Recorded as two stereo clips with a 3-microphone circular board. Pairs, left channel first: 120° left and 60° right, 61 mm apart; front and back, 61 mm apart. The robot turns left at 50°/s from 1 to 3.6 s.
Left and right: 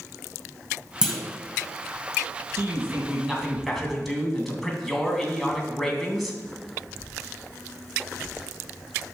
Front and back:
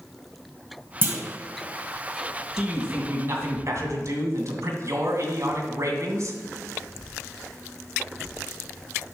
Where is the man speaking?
100° right, 2.5 m; by 6.4 s 155° right, 2.5 m.